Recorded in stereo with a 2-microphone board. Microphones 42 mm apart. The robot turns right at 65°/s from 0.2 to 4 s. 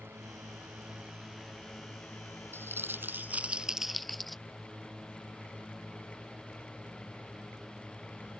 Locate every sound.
0.0 s a drone: 85° right; by 8.4 s 15° left (ahead or behind)
2.5 s crumpling: 95° right; by 4.4 s straight ahead